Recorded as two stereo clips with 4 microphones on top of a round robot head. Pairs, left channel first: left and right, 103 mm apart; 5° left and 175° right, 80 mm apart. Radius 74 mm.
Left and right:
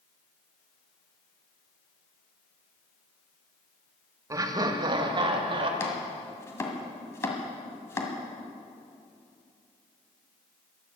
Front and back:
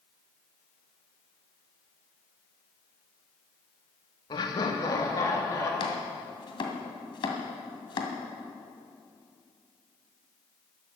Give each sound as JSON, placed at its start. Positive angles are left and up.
{"t": 4.3, "sound": "laughter", "azimuth_deg": -35, "distance_m": 1.4}
{"t": 5.8, "sound": "chopping", "azimuth_deg": 25, "distance_m": 2.0}